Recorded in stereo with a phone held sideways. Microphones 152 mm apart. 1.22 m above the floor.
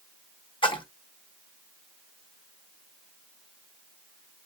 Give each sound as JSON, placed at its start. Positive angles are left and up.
{"t": 0.6, "sound": "a splash", "side_deg": 35, "distance_m": 0.9}